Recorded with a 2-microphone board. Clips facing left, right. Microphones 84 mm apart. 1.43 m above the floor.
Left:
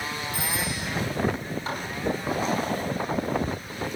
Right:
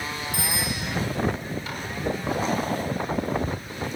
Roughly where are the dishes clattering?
Left.